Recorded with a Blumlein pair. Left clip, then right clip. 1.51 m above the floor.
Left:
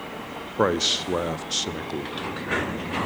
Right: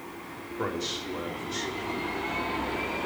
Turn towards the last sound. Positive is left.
turn(degrees=35)